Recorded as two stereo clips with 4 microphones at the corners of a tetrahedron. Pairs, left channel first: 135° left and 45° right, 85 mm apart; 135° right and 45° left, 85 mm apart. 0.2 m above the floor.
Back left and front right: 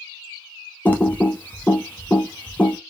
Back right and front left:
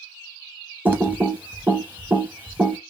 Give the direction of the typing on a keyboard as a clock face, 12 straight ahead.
9 o'clock.